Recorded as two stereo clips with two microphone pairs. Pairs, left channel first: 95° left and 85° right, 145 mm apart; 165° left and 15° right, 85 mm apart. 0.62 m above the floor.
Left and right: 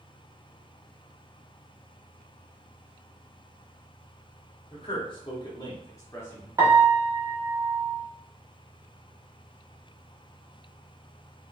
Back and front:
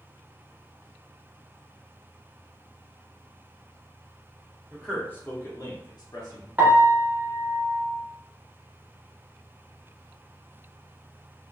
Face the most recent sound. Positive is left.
turn(degrees=-50)